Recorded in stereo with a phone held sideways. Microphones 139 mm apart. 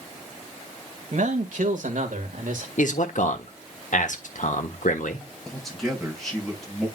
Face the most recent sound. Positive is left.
turn(degrees=0)  # may be behind; listen again after turning